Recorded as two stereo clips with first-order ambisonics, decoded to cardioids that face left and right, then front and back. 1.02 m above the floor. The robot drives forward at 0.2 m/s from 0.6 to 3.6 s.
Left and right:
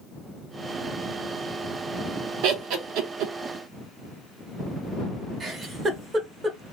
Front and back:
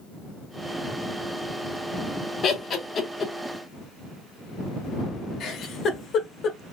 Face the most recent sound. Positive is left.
turn(degrees=-35)